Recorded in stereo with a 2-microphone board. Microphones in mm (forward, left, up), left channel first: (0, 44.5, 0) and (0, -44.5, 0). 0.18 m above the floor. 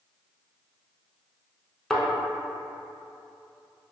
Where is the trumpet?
No trumpet in this recording.